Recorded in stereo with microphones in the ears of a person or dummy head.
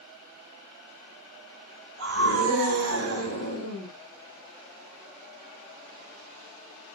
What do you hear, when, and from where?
2.0 s a scream: 85° right, 6 m